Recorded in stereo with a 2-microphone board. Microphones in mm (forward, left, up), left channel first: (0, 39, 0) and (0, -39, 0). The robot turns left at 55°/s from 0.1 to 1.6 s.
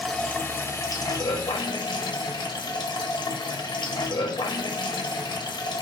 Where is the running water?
170° left, 0.9 m; by 5.8 s 90° left, 0.9 m.